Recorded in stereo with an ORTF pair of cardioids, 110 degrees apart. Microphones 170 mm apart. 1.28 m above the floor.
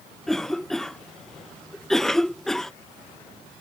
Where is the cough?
5° left.